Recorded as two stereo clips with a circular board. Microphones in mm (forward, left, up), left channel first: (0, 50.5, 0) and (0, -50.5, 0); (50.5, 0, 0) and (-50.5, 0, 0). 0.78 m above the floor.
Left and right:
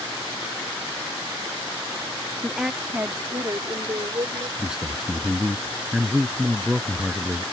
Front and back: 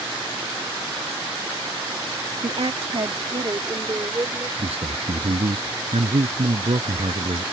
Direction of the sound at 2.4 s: 175° left.